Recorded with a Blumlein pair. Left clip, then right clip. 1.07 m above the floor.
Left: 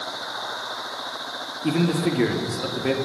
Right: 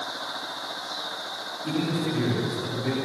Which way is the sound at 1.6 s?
60° left.